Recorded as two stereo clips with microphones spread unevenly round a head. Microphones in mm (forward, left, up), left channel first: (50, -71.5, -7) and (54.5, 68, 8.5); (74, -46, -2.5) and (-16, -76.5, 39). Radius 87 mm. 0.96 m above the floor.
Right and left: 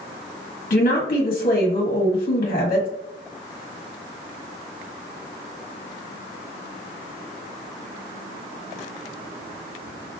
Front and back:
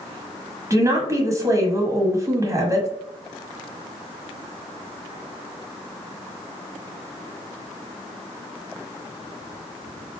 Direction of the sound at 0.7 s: 95° right.